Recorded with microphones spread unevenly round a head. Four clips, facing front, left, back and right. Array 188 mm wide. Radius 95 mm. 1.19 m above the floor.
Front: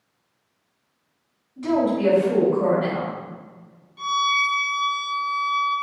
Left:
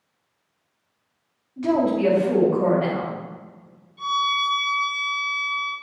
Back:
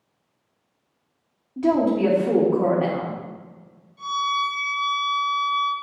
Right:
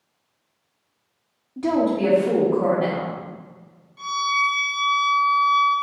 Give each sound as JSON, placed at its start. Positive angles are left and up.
{"t": 1.6, "sound": "a woman speaking", "azimuth_deg": -145, "distance_m": 2.0}
{"t": 4.0, "sound": "a violin", "azimuth_deg": -30, "distance_m": 2.5}